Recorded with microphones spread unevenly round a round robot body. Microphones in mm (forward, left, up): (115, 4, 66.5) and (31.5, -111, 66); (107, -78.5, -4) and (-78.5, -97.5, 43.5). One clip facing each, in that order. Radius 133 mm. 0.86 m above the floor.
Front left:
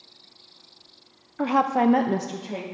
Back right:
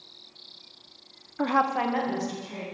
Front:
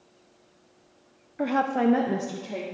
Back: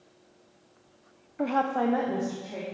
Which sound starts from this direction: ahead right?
A woman speaking, at 1.4 s.